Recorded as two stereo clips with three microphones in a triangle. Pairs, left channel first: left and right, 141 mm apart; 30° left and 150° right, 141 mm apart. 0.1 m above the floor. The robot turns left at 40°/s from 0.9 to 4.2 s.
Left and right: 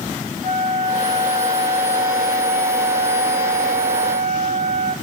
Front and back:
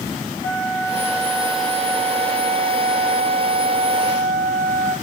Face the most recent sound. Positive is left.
turn(degrees=20)